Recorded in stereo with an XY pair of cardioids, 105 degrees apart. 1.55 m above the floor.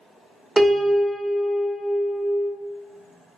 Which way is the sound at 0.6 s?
10° right.